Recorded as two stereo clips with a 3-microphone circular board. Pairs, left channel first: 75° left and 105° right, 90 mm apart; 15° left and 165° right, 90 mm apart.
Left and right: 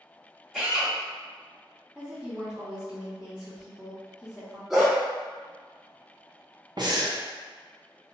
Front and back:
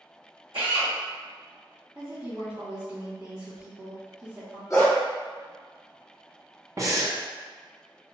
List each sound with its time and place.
0.5 s a drill: 175° left, 1.7 m
1.9 s a woman speaking: 170° left, 1.8 m
4.7 s a dog barking: 20° right, 1.3 m
6.8 s breathing: 125° right, 0.5 m